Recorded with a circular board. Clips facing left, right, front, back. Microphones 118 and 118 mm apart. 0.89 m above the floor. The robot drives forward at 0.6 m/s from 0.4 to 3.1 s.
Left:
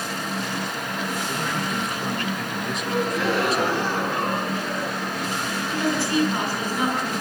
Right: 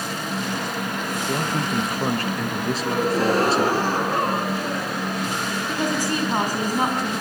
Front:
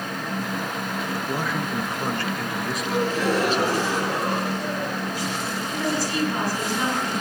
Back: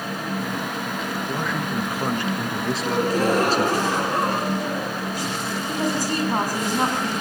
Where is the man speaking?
70° right, 1.2 m; by 3.8 s 140° right, 1.4 m.